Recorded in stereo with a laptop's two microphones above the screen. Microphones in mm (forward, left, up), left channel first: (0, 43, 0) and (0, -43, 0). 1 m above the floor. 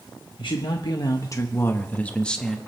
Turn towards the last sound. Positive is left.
turn(degrees=5)  # may be behind; listen again after turning